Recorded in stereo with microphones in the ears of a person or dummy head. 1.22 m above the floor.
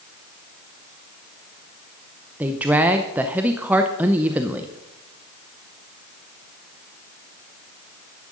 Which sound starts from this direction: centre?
A woman speaking, at 2.4 s.